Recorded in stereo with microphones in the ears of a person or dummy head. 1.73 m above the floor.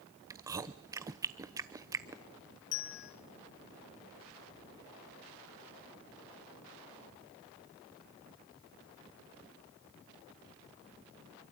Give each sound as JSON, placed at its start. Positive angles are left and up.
{"t": 0.3, "sound": "chewing", "side_deg": -15, "distance_m": 0.9}
{"t": 2.7, "sound": "a bell", "side_deg": 65, "distance_m": 3.0}